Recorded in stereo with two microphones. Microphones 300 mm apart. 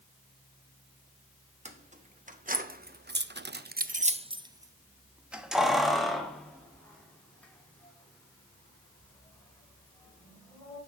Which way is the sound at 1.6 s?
20° right (ahead or behind).